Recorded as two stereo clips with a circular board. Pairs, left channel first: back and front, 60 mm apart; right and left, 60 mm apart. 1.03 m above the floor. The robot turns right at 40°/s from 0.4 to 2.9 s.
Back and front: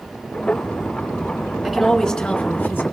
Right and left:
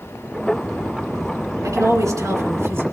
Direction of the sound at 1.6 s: 80° left.